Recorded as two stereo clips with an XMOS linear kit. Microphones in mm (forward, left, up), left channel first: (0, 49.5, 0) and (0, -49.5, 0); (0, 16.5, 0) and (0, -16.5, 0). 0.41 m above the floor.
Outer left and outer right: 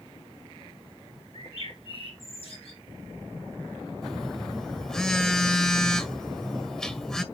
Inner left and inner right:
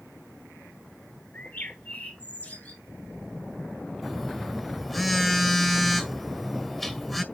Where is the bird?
75° left (ahead or behind), 6.5 m.